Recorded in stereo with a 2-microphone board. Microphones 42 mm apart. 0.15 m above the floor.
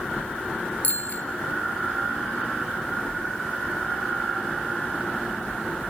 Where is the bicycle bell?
35° left (ahead or behind), 2 m.